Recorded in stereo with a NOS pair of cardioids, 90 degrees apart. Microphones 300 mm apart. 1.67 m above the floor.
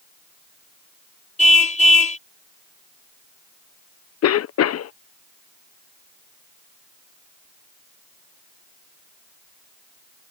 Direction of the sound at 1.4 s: 25° left.